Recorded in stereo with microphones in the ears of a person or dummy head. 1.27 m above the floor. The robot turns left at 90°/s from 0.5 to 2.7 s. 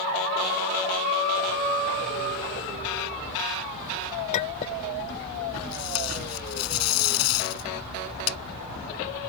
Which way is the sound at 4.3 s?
35° left (ahead or behind).